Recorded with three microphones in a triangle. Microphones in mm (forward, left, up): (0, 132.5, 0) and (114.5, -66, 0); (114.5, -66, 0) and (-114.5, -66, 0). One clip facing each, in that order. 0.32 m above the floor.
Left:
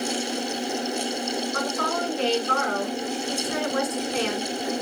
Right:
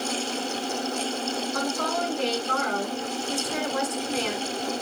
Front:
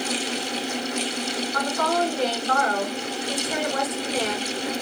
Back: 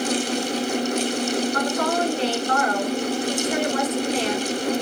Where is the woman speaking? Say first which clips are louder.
Left 1 dB, back 2 dB; 120° left, 3 m.